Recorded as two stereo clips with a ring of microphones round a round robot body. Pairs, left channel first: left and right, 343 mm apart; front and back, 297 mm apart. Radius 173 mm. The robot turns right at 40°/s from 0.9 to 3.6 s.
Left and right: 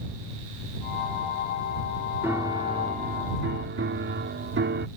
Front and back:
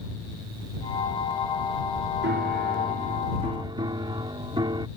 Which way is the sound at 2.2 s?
170° right.